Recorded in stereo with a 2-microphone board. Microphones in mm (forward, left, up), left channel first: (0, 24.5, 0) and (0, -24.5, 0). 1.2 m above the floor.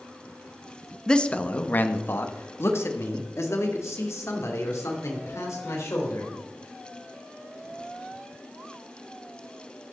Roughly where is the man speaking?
Centre.